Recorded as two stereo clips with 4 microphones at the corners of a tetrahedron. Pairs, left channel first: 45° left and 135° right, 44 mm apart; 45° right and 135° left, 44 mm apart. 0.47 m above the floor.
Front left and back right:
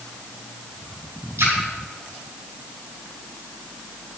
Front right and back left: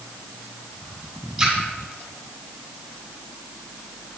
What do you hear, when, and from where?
1.4 s a splash: 145° right, 2.5 m